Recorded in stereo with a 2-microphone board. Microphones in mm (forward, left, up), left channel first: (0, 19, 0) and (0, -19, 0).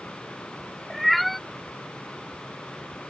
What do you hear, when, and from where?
0.9 s a cat meowing: centre (ahead or behind)